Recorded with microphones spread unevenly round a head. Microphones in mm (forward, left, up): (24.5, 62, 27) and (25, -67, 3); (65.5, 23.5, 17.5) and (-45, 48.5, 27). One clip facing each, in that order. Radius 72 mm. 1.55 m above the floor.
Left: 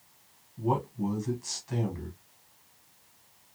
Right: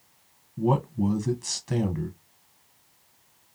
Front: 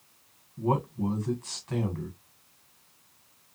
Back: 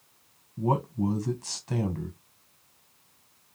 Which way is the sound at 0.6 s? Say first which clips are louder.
Right 5 dB, back 1 dB; 130° right.